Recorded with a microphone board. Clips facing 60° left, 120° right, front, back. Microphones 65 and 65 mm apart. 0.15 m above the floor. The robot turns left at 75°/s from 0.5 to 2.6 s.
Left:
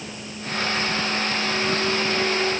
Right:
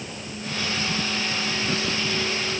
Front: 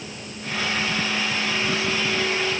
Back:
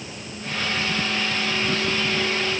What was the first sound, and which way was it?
Only background noise.